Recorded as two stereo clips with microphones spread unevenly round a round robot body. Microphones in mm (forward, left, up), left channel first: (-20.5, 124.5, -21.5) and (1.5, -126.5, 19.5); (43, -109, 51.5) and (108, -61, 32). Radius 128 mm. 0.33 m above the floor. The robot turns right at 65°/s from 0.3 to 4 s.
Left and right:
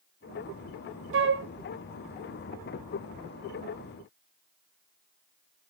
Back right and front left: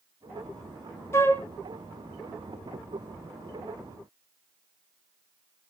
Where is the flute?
85° right, 0.6 m; by 1.5 s 65° right, 0.6 m.